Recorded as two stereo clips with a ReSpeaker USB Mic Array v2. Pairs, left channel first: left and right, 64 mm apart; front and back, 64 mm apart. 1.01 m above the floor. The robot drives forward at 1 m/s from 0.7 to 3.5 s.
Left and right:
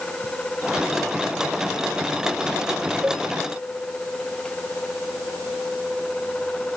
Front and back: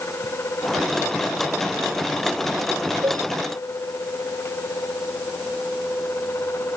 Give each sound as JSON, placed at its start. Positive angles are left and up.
{"t": 3.0, "sound": "a cowbell", "azimuth_deg": -160}